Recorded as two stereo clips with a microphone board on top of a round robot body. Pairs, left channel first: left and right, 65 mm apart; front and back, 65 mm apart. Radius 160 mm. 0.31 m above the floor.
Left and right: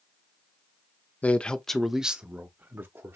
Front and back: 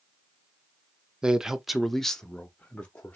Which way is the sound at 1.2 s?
120° left.